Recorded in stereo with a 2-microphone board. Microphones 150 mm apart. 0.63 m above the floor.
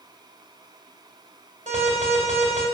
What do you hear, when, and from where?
1.7 s an alarm: 50° right (ahead or behind), 5 m